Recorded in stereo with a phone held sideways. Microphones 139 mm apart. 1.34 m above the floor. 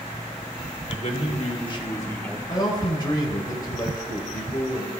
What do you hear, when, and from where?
0.9 s a man speaking: 55° left (ahead or behind), 2 m; by 2.4 s 5° left (ahead or behind), 1.4 m
2.5 s a man speaking: 30° left (ahead or behind), 3.5 m